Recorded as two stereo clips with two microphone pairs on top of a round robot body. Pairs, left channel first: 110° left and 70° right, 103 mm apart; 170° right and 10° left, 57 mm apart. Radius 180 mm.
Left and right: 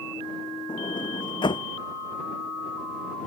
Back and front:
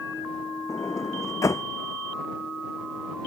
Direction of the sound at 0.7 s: 160° left.